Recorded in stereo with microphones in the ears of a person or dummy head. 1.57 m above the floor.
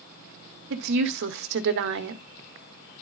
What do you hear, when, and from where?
0.7 s a woman speaking: 60° right (ahead or behind), 1.0 m